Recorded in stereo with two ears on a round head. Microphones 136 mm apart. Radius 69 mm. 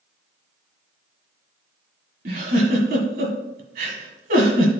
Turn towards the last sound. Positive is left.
turn(degrees=-60)  # may be behind; listen again after turning